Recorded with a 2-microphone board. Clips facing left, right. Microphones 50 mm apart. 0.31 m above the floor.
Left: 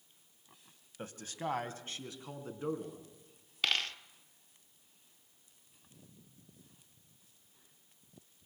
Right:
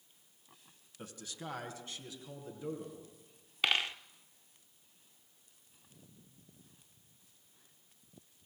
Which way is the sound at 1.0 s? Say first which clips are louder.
Left 6 dB; 40° left (ahead or behind).